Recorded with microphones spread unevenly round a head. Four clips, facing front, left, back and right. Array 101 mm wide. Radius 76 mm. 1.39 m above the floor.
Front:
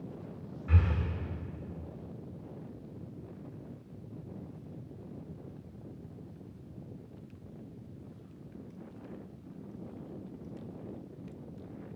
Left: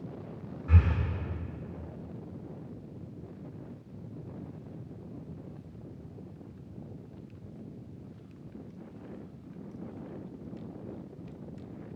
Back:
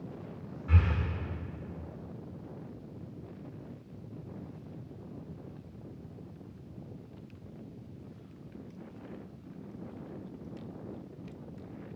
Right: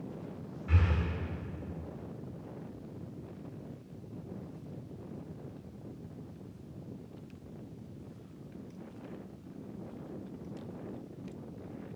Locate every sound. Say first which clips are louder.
0.7 s breathing: left 3 dB, back 1 dB; 35° left, 1.8 m